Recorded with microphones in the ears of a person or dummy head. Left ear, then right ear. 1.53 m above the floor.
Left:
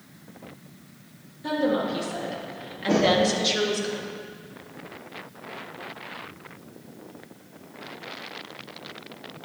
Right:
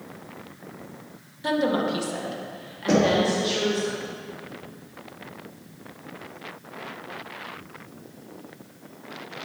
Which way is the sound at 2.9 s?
75° right (ahead or behind).